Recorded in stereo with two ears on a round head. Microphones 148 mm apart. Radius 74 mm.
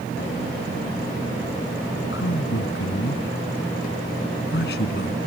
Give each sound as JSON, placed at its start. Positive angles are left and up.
{"t": 2.1, "sound": "a man speaking", "side_deg": 85}